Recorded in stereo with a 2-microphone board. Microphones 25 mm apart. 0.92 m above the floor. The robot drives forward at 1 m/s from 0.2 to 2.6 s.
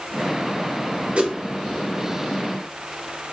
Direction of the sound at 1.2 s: 45° right (ahead or behind).